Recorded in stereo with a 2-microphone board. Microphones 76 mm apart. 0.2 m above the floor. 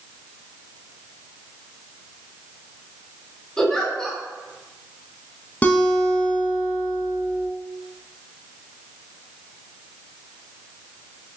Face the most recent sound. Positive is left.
turn(degrees=20)  # may be behind; listen again after turning